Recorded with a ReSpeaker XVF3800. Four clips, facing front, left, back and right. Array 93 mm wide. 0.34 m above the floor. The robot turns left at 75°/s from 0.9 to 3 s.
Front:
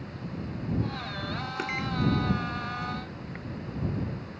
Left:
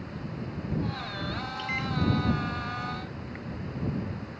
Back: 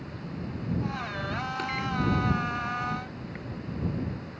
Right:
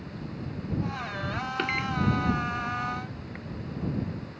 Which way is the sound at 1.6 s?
70° right.